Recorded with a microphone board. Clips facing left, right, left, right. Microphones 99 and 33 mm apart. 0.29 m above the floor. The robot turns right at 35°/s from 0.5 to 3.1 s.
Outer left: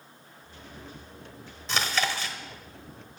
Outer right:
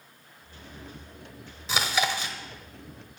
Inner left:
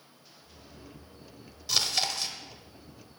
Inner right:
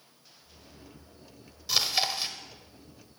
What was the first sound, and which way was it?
Chewing, 5° right (ahead or behind).